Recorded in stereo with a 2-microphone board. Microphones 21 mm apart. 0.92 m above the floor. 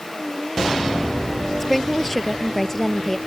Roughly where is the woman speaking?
Centre.